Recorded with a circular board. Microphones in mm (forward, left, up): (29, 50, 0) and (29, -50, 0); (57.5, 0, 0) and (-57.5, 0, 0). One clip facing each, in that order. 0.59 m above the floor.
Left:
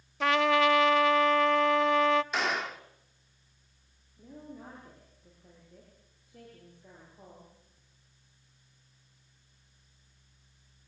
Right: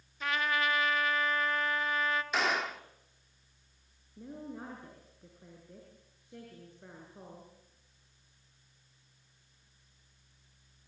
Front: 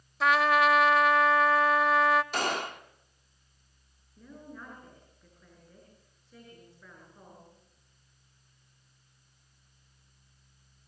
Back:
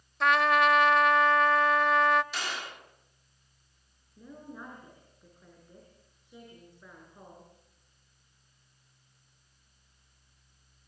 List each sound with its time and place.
0.2 s a trumpet: 90° left, 0.7 m
2.3 s a gunshot: straight ahead, 1.4 m
4.2 s a woman speaking: 105° right, 7.5 m